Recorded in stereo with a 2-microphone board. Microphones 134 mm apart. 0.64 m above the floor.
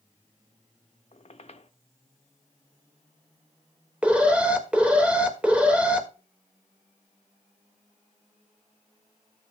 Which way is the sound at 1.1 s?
50° left (ahead or behind).